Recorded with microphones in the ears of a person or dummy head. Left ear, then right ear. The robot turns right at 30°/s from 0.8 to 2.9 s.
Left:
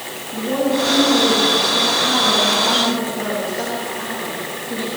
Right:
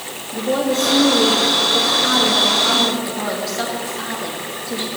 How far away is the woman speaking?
About 2.5 m.